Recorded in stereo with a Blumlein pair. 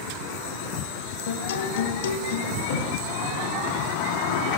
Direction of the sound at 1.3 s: 60° left.